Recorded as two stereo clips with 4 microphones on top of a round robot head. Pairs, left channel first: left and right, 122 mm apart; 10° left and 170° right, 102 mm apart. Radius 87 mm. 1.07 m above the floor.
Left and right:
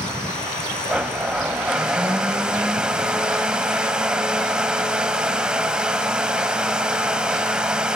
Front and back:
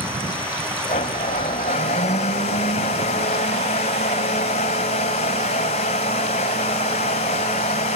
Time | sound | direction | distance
0.9 | a blender | 10° right | 1.3 m